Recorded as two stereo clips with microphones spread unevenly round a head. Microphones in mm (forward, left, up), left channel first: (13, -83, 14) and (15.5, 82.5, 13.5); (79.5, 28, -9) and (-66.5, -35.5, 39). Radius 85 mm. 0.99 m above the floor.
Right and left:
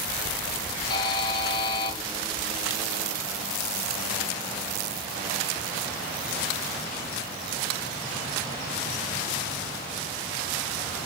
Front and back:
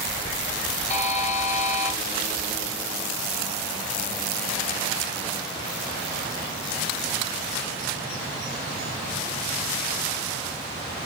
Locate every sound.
0.9 s a buzzer: 30° right, 1.2 m